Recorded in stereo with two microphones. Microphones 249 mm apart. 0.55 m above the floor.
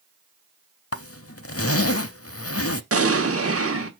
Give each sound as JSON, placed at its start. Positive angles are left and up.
{"t": 0.9, "sound": "a zipper", "side_deg": 60, "distance_m": 0.6}
{"t": 2.9, "sound": "an explosion", "side_deg": -60, "distance_m": 1.2}